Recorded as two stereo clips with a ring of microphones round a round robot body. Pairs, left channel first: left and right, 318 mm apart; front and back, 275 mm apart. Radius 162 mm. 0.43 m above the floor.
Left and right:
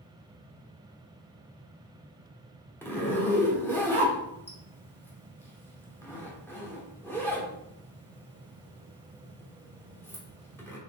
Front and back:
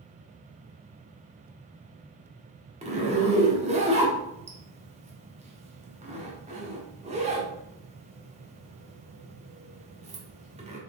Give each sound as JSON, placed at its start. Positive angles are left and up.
{"t": 2.8, "sound": "a zipper", "azimuth_deg": 165, "distance_m": 1.1}